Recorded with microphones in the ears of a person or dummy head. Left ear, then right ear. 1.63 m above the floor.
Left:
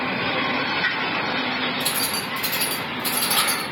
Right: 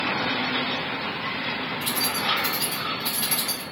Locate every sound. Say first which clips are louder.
1.8 s keys jangling: left 1 dB; 65° left (ahead or behind), 1.7 m; by 3.6 s 50° left (ahead or behind), 1.7 m